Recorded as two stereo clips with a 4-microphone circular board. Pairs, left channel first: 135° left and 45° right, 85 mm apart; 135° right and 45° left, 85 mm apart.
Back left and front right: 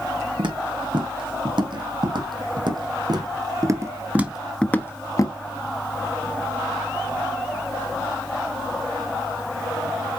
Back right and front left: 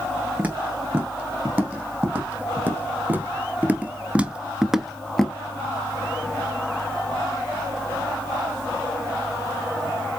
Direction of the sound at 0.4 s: 25° right.